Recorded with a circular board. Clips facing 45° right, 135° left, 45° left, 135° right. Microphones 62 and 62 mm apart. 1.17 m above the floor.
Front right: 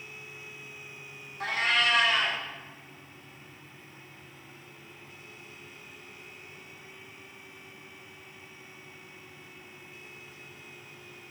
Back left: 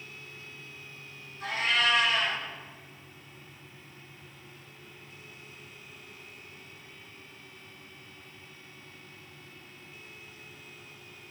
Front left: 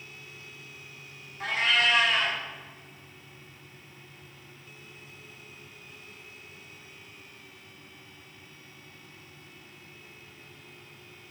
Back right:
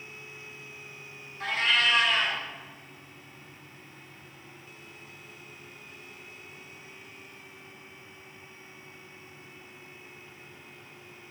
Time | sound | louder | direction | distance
1.4 | a cat meowing | front right 1 dB, front left 1 dB | 35° right | 1.7 m